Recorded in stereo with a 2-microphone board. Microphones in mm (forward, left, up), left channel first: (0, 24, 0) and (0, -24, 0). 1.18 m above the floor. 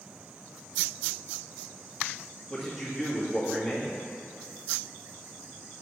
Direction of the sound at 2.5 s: 10° left (ahead or behind).